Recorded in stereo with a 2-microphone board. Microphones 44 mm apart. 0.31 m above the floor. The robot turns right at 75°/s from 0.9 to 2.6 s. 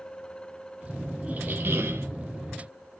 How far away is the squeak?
About 0.8 m.